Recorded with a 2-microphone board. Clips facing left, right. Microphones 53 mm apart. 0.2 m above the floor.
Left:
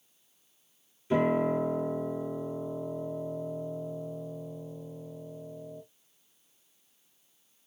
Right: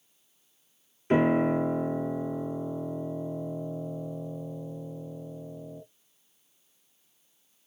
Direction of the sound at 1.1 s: 55° right (ahead or behind).